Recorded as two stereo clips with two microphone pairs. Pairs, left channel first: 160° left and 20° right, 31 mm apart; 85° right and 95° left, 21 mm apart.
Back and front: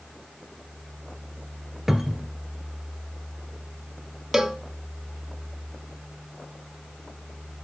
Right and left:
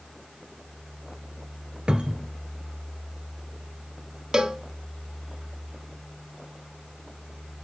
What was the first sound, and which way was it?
A cupboard door, 55° left.